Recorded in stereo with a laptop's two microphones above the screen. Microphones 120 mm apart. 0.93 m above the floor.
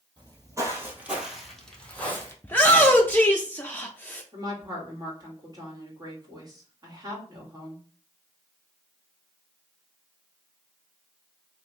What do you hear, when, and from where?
0.2 s footsteps: 35° right (ahead or behind), 1.6 m; by 2.3 s 20° left (ahead or behind), 1.9 m
2.4 s a shout: 15° left (ahead or behind), 0.5 m
4.3 s a woman speaking: 35° right (ahead or behind), 1.9 m